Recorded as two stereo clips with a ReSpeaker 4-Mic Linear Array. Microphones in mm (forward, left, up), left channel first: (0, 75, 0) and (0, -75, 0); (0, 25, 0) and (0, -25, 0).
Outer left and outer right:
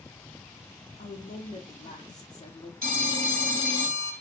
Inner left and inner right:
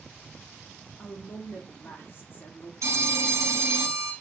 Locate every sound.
1.0 s a woman speaking: 50° left (ahead or behind), 1.2 m
2.8 s a phone ringing: 85° right, 1.5 m